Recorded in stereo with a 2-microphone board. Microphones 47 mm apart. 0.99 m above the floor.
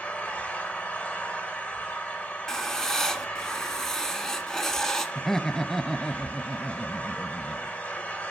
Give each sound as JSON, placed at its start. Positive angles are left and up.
{"t": 0.0, "sound": "an engine running", "side_deg": 30, "distance_m": 2.0}
{"t": 2.5, "sound": "writing", "side_deg": 10, "distance_m": 1.6}
{"t": 5.2, "sound": "laughter", "side_deg": 10, "distance_m": 0.7}